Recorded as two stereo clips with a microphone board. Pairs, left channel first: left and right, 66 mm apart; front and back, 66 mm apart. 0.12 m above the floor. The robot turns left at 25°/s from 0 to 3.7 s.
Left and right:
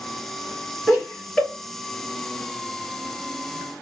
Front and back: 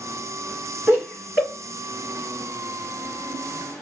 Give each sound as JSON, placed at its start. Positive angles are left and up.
{"t": 0.9, "sound": "laughter", "azimuth_deg": 180, "distance_m": 1.6}